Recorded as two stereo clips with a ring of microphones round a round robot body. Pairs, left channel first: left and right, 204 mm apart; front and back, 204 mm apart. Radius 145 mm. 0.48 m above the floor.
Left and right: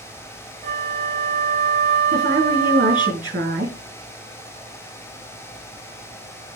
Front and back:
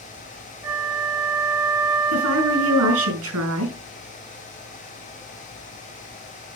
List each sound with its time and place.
0.6 s a flute: 110° right, 0.8 m
2.1 s a woman speaking: 155° right, 6 m